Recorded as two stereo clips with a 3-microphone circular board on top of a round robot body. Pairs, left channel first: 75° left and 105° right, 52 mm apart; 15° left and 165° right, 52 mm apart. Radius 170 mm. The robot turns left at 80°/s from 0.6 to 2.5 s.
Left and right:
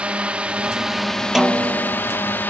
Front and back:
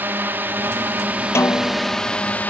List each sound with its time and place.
0.0 s a drone: 160° right; by 2.5 s 50° left
1.4 s a snare drum: 20° right; by 2.0 s 70° right